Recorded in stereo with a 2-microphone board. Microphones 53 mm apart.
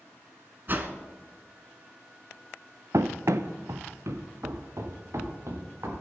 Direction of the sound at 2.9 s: 80° right.